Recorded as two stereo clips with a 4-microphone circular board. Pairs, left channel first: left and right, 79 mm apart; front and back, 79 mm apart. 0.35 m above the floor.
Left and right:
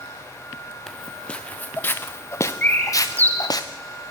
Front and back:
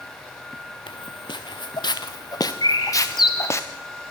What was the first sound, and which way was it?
Footsteps, 5° left.